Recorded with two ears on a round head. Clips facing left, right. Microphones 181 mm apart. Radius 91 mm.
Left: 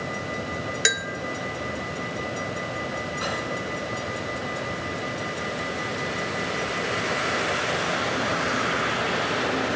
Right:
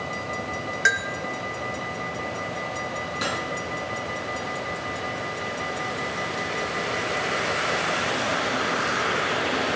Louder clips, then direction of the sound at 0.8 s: Even; 45° left (ahead or behind).